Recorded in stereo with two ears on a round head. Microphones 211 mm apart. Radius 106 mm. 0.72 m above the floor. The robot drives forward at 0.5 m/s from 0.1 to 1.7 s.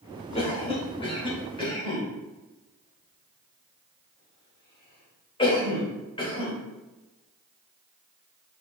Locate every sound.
0.3 s a cough: 25° left (ahead or behind), 3 m; by 6.5 s 20° left (ahead or behind), 3.5 m